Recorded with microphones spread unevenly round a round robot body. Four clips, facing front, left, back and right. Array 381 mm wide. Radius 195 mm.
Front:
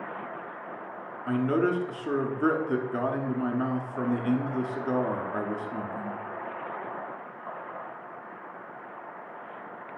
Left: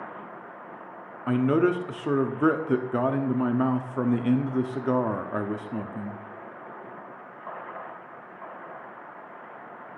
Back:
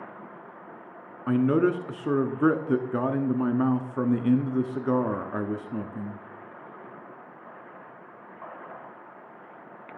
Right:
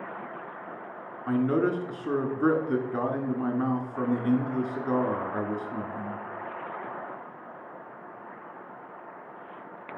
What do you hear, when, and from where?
1.3 s a man speaking: 160° left, 0.8 m